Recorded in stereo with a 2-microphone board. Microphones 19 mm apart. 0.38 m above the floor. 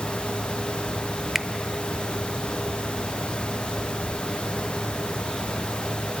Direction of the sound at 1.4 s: 10° right (ahead or behind).